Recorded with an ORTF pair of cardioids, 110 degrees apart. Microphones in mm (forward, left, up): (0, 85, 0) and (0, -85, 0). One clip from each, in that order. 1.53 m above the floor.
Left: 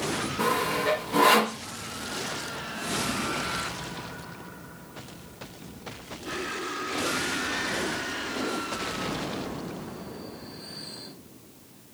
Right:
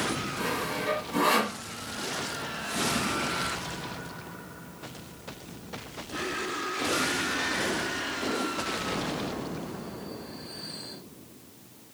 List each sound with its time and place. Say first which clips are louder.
0.4 s sawing: left 7 dB; 50° left, 0.6 m